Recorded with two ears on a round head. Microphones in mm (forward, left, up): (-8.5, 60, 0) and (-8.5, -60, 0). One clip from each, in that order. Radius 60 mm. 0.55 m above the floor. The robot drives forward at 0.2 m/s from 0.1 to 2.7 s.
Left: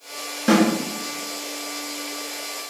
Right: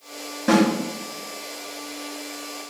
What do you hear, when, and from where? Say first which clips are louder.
0.5 s a snare drum: left 1 dB; 50° left (ahead or behind), 1.2 m; by 0.7 s 55° left (ahead or behind), 1.2 m